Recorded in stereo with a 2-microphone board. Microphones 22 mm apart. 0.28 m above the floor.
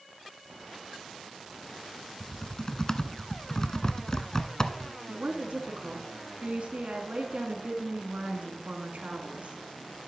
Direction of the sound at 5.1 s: 65° right (ahead or behind).